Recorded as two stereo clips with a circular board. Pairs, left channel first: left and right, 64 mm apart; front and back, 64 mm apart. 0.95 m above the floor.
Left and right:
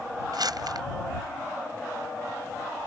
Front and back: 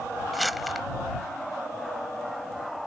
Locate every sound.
0.3 s crumpling: 90° right